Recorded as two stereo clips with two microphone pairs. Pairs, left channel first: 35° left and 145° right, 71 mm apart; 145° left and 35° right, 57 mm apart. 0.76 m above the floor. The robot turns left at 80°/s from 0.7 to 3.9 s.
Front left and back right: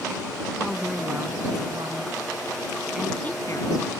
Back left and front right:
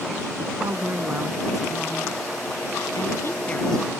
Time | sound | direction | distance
0.6 | a woman speaking | 50° right | ?